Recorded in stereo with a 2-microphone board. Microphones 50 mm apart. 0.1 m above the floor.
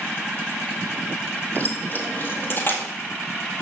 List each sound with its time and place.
1.6 s keys jangling: 40° left (ahead or behind), 1.2 m; by 2.8 s 50° left (ahead or behind), 1.8 m